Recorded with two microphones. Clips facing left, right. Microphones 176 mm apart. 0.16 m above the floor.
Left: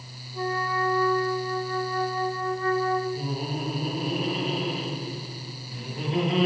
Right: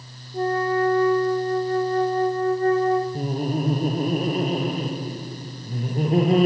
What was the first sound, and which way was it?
A flute, 40° right (ahead or behind).